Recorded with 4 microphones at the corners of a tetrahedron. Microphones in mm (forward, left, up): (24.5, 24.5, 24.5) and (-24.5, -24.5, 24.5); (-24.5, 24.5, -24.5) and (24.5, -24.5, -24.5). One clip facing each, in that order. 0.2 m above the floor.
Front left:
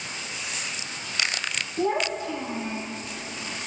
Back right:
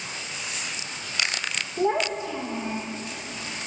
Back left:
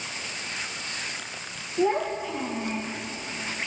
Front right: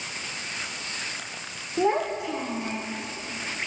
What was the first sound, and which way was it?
A child speaking, 70° right.